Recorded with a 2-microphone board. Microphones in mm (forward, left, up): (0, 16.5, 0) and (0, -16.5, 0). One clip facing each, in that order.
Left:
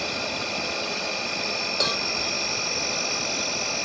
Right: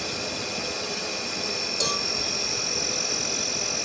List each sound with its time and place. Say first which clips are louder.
0.0 s an insect: left 3 dB; 20° left (ahead or behind), 1.7 m
1.8 s a cowbell: left 2 dB; 35° left (ahead or behind), 1.1 m